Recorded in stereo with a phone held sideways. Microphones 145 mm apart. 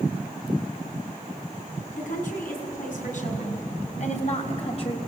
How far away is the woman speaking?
About 7 m.